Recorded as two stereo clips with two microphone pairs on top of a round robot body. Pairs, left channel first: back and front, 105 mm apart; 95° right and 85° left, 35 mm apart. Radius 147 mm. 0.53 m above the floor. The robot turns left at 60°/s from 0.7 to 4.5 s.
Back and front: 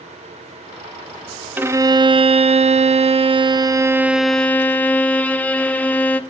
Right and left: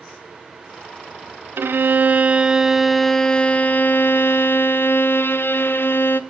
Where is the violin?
70° left, 0.7 m; by 6.2 s 105° right, 0.7 m.